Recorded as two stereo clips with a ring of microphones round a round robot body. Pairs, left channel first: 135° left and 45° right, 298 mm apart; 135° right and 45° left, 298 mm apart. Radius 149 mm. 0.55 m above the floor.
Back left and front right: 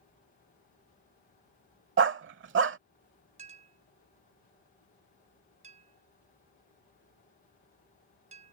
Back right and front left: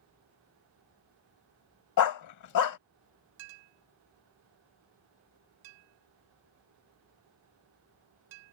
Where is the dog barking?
100° right.